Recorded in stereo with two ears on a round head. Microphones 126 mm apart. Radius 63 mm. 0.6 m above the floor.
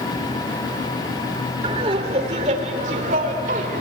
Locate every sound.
1.6 s laughter: 40° right (ahead or behind), 2.5 m; by 3.8 s 65° right (ahead or behind), 3 m